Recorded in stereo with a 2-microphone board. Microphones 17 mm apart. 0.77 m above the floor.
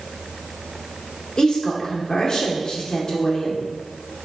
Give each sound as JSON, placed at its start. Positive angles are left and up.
{"t": 1.4, "sound": "a woman speaking", "side_deg": 45, "distance_m": 1.9}